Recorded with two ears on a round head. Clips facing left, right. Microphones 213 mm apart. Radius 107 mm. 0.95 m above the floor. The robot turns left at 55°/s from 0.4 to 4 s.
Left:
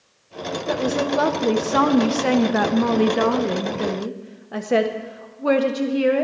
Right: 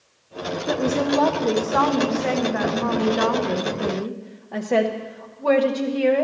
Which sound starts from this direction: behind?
A woman speaking, at 0.7 s.